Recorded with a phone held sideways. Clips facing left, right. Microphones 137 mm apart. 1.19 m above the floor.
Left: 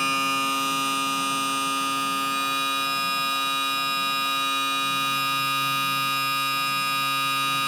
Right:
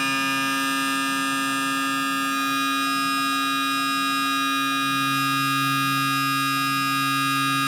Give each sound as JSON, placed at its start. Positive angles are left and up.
{"t": 0.0, "sound": "a machine running", "side_deg": 45, "distance_m": 2.0}